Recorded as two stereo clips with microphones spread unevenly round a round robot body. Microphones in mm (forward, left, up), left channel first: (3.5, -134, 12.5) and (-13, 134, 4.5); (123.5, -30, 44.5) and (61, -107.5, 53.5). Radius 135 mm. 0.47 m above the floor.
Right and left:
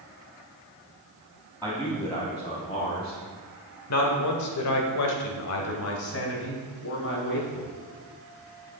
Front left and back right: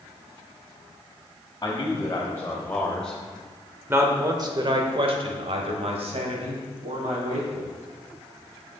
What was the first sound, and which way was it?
A man speaking, 5° right.